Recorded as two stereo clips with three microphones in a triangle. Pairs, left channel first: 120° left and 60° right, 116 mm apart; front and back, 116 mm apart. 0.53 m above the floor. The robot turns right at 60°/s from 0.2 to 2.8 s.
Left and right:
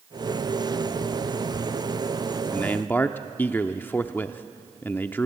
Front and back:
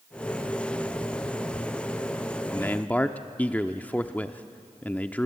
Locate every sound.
2.5 s a man speaking: 45° left, 0.7 m; by 5.2 s 65° left, 0.7 m